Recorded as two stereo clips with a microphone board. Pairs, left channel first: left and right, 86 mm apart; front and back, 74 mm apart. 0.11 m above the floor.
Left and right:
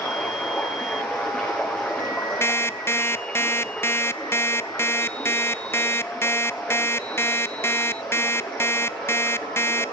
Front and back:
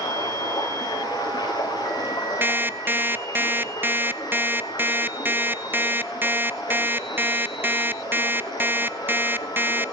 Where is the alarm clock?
135° left, 0.5 m.